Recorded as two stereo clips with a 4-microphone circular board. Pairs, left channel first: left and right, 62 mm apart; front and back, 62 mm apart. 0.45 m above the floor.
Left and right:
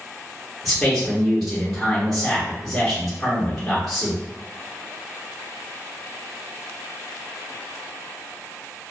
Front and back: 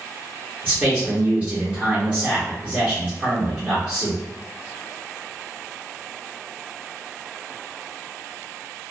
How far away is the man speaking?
About 1.0 m.